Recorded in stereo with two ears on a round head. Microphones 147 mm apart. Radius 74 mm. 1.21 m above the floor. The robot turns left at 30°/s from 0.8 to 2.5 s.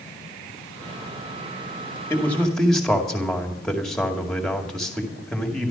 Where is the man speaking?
15° left (ahead or behind), 2 m; by 5.7 s 5° left (ahead or behind), 2 m.